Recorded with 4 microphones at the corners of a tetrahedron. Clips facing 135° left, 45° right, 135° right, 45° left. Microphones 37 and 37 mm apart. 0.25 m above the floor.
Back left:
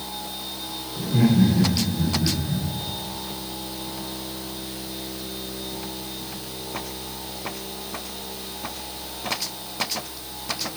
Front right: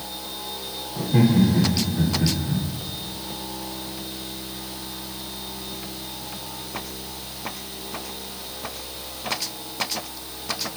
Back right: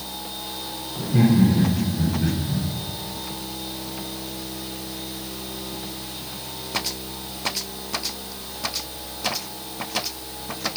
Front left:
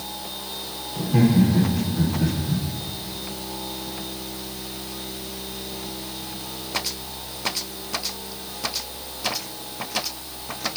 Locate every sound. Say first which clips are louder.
1.0 s laughter: front right 1 dB, even; straight ahead, 9.5 m